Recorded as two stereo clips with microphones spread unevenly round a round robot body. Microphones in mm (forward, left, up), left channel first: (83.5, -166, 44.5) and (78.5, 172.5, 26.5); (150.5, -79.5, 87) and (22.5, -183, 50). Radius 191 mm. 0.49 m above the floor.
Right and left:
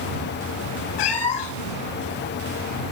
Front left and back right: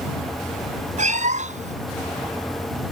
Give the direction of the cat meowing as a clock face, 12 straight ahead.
3 o'clock.